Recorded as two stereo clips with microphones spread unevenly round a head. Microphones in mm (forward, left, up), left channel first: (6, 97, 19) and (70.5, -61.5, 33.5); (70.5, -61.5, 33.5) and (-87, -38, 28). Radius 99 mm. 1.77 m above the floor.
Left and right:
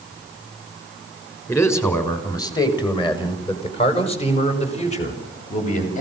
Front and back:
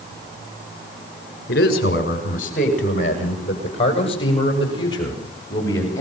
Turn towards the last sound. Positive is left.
turn(degrees=65)